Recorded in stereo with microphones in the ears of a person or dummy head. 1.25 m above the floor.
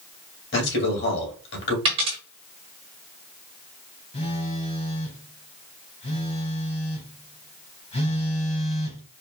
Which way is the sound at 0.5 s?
60° left (ahead or behind).